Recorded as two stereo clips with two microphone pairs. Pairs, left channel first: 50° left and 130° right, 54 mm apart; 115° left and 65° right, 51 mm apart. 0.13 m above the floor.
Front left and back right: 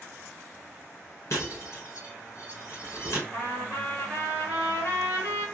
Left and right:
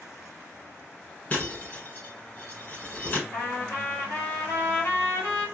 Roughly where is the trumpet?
Left.